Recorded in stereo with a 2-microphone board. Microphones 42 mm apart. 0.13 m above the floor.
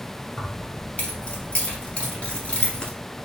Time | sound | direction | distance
0.4 | keys jangling | 25° left (ahead or behind) | 2 m